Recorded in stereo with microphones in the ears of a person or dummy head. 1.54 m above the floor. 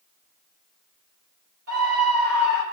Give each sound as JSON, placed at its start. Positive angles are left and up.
{"t": 1.7, "sound": "a scream", "side_deg": -85, "distance_m": 5.5}